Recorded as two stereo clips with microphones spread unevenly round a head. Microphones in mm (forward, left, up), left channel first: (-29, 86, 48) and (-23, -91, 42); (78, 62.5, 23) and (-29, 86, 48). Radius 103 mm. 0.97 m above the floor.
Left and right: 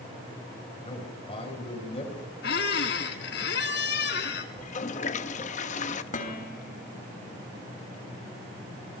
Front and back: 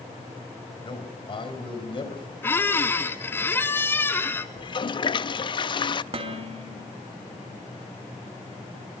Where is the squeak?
65° left, 1.4 m.